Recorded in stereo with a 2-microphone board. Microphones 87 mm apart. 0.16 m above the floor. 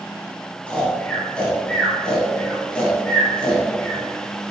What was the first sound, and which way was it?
Snoring, 15° left (ahead or behind).